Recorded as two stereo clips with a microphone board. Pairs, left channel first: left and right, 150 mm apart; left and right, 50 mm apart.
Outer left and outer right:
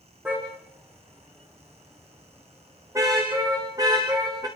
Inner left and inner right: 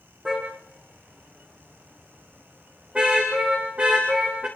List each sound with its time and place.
0.2 s a car horn: 10° right (ahead or behind), 8 m; by 4.5 s 25° right (ahead or behind), 13 m